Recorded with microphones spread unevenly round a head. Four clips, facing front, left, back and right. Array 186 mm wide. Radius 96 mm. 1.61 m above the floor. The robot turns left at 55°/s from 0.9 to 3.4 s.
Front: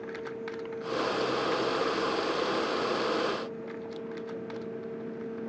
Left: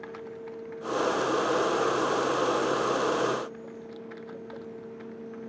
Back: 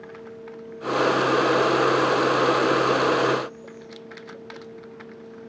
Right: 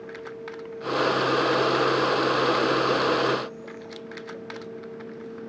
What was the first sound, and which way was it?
Only background noise.